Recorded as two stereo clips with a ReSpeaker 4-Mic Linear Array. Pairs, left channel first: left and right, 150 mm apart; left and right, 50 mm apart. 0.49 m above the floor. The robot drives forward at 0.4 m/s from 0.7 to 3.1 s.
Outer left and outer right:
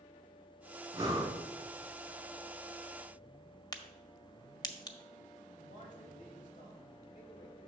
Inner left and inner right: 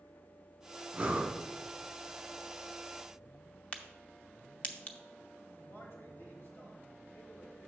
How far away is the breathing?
About 1.2 m.